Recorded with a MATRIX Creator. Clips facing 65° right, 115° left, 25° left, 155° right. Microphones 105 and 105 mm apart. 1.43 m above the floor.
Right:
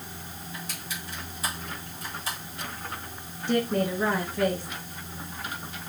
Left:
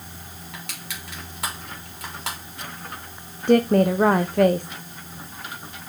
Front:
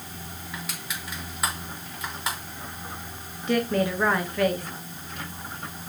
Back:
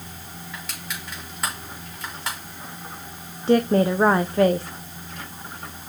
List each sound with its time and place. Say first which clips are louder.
0.5 s crushing: left 1 dB, even; 110° left, 3.5 m
3.5 s a woman speaking: left 9 dB, back 6 dB; 145° left, 0.5 m